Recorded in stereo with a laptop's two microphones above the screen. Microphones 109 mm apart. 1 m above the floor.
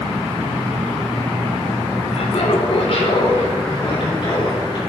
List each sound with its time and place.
2.1 s laughter: 70° left (ahead or behind), 3 m; by 4.8 s 45° left (ahead or behind), 6 m